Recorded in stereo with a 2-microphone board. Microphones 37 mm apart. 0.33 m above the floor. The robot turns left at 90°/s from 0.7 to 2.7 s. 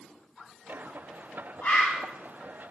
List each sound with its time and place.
1.6 s a bird: 55° left, 0.6 m; by 2.0 s 20° left, 0.6 m